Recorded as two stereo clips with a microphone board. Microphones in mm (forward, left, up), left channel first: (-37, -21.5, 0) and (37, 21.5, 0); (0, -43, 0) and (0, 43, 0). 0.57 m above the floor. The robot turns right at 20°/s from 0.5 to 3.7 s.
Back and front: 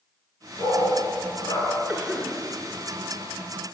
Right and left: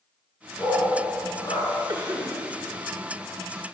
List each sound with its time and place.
0.6 s a dog barking: 140° right, 3 m; by 1.7 s 120° right, 3 m
1.9 s a cough: 95° left, 1.5 m; by 2.4 s 105° left, 1.5 m